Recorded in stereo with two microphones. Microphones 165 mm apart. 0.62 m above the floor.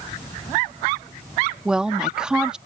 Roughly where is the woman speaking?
Centre.